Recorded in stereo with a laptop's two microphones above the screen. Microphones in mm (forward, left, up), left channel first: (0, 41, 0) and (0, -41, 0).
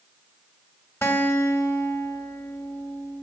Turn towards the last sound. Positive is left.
turn(degrees=30)  # may be behind; listen again after turning